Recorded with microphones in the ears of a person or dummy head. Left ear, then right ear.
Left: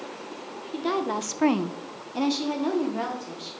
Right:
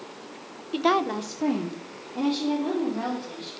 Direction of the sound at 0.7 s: 40° right (ahead or behind).